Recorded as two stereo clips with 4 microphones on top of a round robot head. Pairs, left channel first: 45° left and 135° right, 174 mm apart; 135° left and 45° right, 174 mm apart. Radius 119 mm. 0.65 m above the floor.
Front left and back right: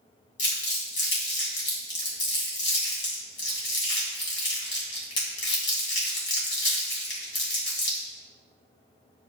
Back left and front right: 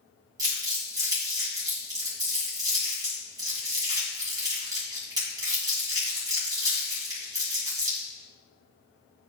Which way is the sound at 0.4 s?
25° left.